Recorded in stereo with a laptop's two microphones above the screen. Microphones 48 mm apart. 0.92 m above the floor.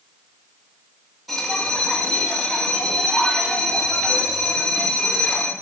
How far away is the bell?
About 2.5 m.